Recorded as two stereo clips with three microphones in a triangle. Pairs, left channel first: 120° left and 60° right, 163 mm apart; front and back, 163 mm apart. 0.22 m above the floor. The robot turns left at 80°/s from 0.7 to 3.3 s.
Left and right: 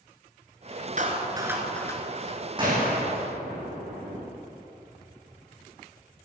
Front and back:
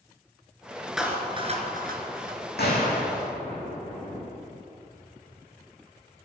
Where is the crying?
I don't hear crying.